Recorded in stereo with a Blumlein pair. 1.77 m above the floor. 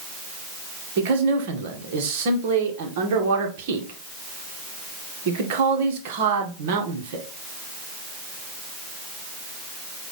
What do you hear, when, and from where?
1.0 s a man speaking: 50° right, 2 m